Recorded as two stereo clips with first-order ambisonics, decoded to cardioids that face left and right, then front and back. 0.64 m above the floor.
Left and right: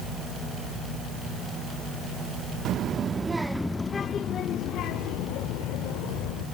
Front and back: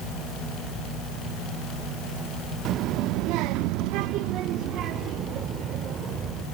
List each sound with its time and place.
2.6 s a child speaking: 135° right, 0.7 m; by 6.5 s 120° left, 1.7 m